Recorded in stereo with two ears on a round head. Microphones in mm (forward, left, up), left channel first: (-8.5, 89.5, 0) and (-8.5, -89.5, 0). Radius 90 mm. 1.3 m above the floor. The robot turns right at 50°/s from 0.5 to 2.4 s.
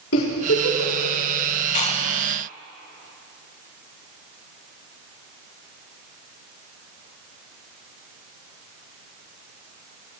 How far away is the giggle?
About 5 m.